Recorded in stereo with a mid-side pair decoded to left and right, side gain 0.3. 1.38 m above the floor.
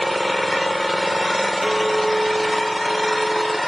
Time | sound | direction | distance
0.0 | an engine running | straight ahead | 0.7 m
1.6 | a clink | 10° right | 0.6 m